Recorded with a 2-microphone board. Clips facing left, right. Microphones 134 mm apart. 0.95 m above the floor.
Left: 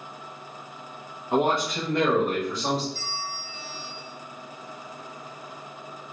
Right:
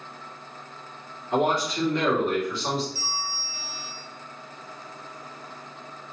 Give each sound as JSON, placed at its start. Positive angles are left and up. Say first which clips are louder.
{"t": 1.3, "sound": "a man speaking", "louder": "even", "side_deg": 55, "distance_m": 1.4}
{"t": 3.0, "sound": "a bell", "louder": "right 1 dB", "side_deg": -5, "distance_m": 1.1}